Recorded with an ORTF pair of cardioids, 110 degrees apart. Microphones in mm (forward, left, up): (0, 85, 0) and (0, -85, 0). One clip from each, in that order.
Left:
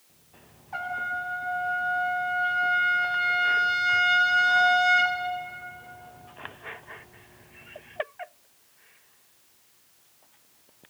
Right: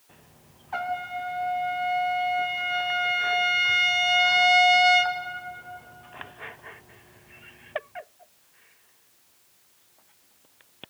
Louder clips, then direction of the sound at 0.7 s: Even; 30° right.